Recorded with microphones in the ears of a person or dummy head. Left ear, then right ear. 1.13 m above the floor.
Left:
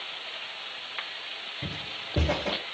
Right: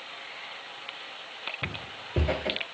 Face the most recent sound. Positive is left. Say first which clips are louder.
# left 1 dB
turn(degrees=-25)  # may be behind; listen again after turning